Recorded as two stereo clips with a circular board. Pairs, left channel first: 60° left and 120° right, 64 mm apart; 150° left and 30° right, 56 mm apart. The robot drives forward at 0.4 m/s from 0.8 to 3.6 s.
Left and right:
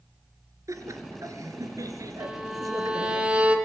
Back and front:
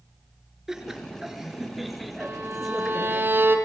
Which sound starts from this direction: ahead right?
A violin, at 2.2 s.